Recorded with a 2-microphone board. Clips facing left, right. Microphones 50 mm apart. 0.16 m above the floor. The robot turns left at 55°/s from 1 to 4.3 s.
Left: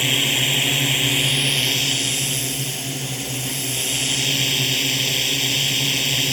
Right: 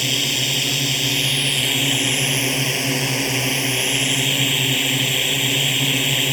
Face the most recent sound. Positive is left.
turn(degrees=-160)